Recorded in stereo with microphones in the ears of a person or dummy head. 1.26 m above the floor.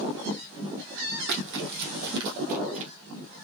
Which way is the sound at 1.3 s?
60° right (ahead or behind).